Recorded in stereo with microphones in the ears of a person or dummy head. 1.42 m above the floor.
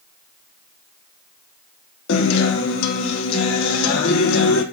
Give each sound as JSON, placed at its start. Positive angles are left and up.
{"t": 2.1, "sound": "a guitar", "side_deg": 75, "distance_m": 1.1}